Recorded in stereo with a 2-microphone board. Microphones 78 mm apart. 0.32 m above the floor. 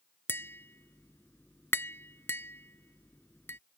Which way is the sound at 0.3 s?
30° left (ahead or behind).